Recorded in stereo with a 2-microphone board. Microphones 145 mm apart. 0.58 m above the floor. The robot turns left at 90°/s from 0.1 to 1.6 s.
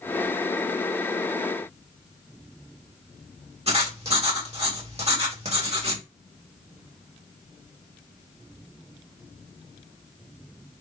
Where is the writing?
45° right (ahead or behind), 1.6 m.